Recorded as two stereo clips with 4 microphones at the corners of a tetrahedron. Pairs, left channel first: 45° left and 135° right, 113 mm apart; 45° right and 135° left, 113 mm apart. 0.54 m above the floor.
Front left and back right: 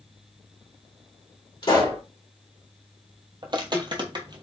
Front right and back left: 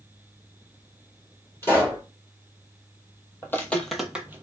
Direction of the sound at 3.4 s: 105° right.